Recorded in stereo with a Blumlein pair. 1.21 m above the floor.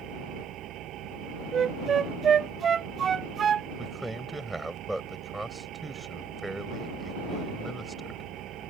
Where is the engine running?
35° right.